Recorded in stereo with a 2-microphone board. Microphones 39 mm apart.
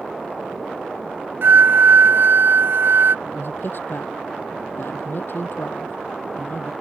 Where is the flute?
70° right (ahead or behind).